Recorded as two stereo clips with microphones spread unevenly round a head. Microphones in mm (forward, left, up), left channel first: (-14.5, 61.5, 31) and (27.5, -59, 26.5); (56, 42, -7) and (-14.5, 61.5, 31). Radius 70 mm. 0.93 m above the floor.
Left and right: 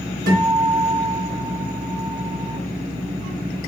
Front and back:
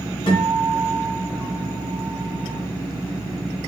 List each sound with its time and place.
0.3 s a guitar: 80° right, 2.5 m